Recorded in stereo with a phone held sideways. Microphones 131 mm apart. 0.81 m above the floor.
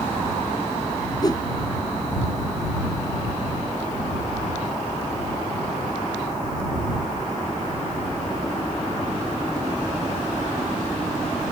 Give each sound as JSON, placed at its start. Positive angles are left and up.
{"t": 1.2, "sound": "a whoosh", "side_deg": 30}